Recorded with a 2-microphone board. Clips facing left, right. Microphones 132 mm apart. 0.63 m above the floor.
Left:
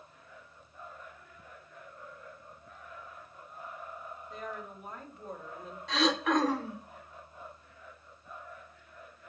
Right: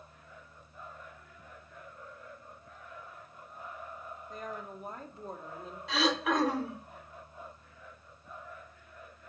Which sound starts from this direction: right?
A woman speaking, at 4.3 s.